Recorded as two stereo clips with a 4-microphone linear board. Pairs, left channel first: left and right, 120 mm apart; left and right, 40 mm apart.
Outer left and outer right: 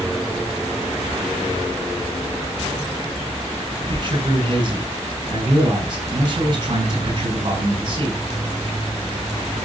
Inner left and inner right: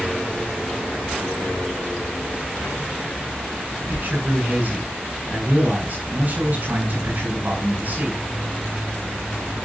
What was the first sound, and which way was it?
A man speaking, 40° right (ahead or behind).